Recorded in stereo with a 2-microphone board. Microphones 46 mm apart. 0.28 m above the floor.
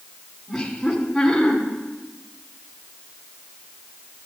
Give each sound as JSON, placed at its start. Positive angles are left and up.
{"t": 0.5, "sound": "laughter", "side_deg": 5, "distance_m": 2.0}